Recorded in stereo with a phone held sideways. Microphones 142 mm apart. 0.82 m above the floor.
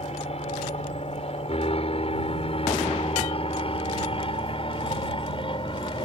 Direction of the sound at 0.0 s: 45° left (ahead or behind).